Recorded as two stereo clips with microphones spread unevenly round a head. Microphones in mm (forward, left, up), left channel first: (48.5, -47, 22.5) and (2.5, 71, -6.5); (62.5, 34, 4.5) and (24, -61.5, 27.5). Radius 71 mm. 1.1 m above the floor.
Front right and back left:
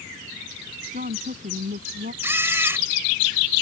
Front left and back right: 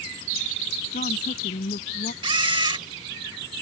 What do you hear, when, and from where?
0.9 s a woman speaking: 85° left
2.2 s a camera shutter: 170° right